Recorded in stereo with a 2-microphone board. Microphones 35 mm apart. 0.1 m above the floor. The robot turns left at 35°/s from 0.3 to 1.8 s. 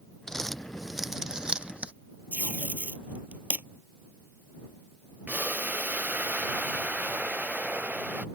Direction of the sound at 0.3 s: 15° left (ahead or behind).